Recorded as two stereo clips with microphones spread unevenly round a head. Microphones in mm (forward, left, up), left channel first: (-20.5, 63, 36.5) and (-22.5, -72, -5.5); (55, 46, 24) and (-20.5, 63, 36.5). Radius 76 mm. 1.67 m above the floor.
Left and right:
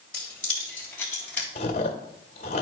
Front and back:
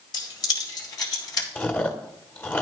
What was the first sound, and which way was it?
Keys jangling, 10° left.